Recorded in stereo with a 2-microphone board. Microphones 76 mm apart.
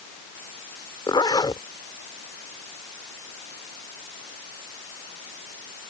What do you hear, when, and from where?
1.1 s a zipper: 75° left (ahead or behind)